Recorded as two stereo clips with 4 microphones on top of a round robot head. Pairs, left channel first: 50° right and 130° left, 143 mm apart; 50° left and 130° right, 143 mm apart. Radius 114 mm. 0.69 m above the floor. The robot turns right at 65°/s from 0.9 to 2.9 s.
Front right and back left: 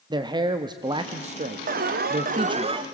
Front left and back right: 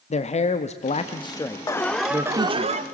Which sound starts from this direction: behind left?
An alarm, at 1.7 s.